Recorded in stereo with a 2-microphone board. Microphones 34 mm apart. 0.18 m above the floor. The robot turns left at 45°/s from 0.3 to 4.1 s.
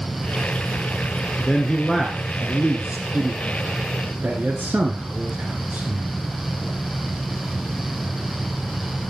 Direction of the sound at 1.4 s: 25° left (ahead or behind).